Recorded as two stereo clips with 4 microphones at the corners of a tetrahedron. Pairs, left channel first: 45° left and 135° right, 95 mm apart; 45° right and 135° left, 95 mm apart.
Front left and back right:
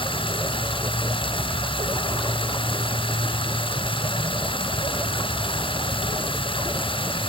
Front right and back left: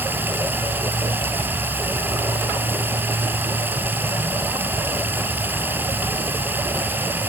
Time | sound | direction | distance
0.0 | running water | 65° left | 1.6 m